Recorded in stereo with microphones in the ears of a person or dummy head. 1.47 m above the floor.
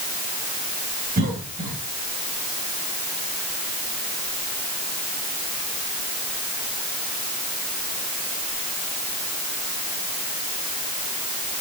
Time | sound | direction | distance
1.2 | a cough | 50° right (ahead or behind) | 3 m